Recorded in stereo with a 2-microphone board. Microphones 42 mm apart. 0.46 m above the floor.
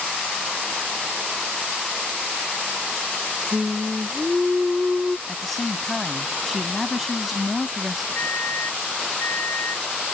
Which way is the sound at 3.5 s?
5° right (ahead or behind).